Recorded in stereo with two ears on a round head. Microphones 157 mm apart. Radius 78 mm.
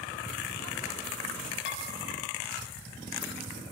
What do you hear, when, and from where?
1.6 s dishes clattering: 80° left, 5.5 m